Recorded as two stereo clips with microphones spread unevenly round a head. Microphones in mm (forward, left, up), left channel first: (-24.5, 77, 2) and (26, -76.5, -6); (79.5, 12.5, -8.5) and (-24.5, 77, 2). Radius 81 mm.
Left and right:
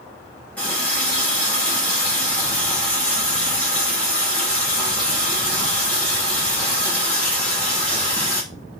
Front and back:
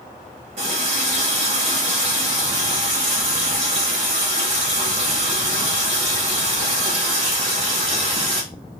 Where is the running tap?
170° right, 1.9 m.